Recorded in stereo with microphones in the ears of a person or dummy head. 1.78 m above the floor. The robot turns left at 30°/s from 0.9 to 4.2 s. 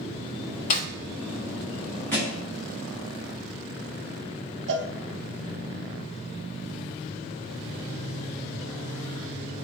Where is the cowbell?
75° right (ahead or behind), 1.0 m.